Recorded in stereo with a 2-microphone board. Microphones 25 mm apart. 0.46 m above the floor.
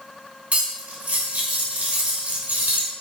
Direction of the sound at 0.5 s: 65° right (ahead or behind).